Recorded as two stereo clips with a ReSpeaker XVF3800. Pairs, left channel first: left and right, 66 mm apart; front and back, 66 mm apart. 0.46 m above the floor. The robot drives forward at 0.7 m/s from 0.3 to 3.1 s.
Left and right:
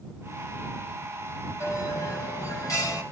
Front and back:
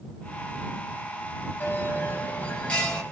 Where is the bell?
55° left, 2.5 m; by 3.0 s 80° left, 2.5 m.